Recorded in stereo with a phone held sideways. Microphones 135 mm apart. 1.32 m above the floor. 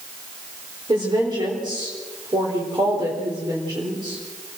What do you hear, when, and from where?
0.9 s a woman speaking: 35° right (ahead or behind), 4 m